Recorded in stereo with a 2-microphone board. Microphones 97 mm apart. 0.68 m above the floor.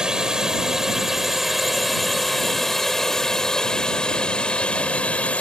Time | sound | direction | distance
0.0 | a drone | 5° right (ahead or behind) | ?